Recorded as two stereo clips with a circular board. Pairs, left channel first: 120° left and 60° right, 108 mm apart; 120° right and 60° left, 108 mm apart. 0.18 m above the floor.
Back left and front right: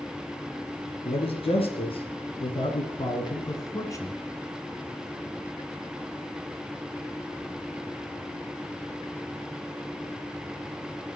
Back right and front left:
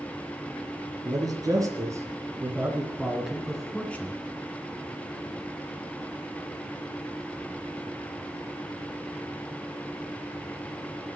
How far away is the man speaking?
About 3.5 m.